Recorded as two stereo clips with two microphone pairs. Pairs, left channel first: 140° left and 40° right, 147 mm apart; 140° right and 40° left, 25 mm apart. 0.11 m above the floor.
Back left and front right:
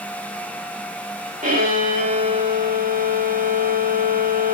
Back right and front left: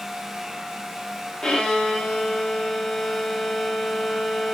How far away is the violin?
About 3 m.